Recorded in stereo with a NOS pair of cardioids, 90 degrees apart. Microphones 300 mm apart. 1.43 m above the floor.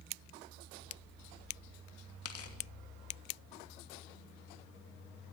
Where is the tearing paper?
50° left, 2.5 m.